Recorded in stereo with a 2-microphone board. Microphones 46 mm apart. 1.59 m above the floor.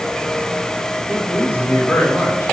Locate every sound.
1.1 s a man speaking: 80° left, 6 m